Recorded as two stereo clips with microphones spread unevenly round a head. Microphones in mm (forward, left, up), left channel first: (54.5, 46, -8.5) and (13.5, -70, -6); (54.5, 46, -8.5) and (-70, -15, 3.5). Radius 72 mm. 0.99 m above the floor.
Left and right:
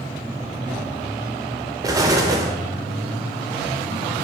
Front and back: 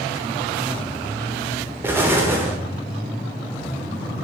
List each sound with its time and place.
1.8 s an explosion: 85° right, 0.6 m